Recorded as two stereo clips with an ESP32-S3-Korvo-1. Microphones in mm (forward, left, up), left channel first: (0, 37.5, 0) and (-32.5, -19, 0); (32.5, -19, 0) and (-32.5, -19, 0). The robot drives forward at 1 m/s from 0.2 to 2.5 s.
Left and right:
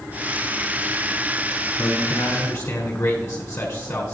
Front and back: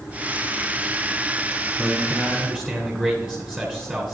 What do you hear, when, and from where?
1.8 s a man speaking: 85° left, 1.5 m; by 4.1 s 115° left, 1.6 m